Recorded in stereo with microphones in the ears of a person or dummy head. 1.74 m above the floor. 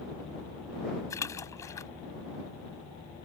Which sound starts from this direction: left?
A splash, at 1.1 s.